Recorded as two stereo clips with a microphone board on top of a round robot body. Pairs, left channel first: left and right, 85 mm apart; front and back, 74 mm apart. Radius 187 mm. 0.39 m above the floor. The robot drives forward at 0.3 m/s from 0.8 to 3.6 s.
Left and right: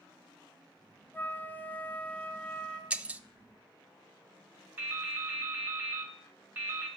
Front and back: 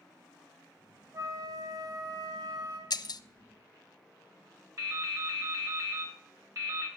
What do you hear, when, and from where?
1.1 s a flute: 155° left, 1.1 m; by 2.8 s 165° left, 1.5 m
2.9 s breaking glass: 15° right, 0.6 m
4.8 s dripping: 155° right, 2.0 m